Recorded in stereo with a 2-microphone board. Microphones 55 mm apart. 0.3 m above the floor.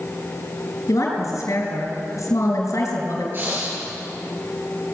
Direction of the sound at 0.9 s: 75° left (ahead or behind).